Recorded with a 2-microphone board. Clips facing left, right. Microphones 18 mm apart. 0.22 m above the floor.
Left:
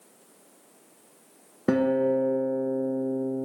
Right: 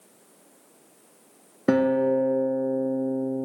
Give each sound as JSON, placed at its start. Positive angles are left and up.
{"t": 1.7, "sound": "a guitar", "side_deg": -20, "distance_m": 0.8}